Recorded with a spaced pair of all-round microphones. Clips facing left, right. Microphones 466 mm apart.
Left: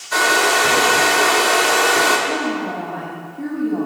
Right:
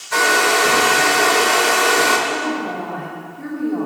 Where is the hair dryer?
55° left (ahead or behind), 1.7 m.